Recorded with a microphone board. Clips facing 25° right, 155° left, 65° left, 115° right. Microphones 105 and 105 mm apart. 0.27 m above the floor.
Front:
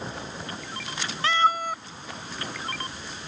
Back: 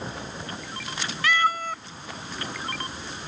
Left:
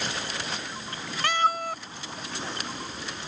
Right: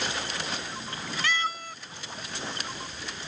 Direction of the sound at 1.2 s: 35° left.